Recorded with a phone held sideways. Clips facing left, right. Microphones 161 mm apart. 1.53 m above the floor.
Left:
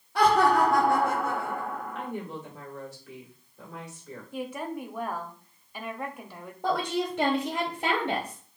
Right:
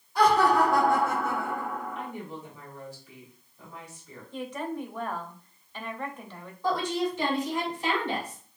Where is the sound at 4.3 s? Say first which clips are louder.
Right 1 dB; 10° left (ahead or behind), 0.9 m.